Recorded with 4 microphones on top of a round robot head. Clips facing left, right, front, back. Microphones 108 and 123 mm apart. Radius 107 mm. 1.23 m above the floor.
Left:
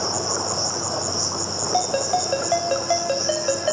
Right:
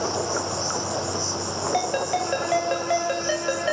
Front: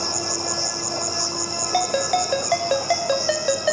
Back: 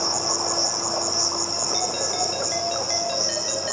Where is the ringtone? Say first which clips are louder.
Left 3 dB, front 8 dB; 20° left, 3.5 m.